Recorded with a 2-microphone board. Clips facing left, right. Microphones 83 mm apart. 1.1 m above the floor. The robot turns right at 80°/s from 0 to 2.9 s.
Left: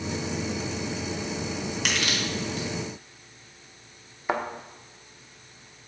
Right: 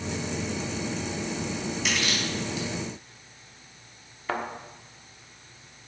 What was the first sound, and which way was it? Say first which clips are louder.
Crushing: left 1 dB; 60° left (ahead or behind).